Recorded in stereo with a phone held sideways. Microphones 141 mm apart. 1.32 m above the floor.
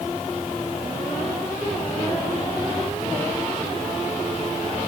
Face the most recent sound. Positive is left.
No sound to turn to.